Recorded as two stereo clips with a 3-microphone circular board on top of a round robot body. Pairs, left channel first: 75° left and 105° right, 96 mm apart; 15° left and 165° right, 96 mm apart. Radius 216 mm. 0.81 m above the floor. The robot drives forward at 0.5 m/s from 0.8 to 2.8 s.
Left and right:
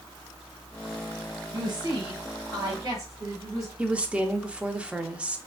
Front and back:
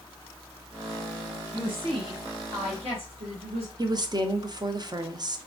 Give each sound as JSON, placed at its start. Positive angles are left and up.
{"t": 1.5, "sound": "a woman speaking", "azimuth_deg": -140, "distance_m": 0.9}
{"t": 3.8, "sound": "a woman speaking", "azimuth_deg": -175, "distance_m": 0.6}